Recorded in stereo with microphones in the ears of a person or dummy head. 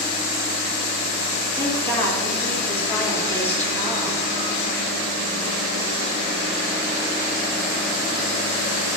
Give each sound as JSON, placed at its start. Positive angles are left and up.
{"t": 1.6, "sound": "a woman speaking", "side_deg": 10, "distance_m": 2.5}